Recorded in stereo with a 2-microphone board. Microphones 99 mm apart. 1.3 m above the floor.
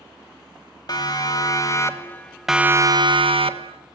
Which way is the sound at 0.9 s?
50° left (ahead or behind).